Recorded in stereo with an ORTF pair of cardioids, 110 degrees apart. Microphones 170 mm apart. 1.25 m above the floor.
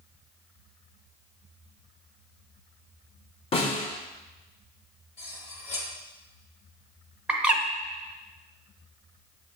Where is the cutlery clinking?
40° left, 1.5 m.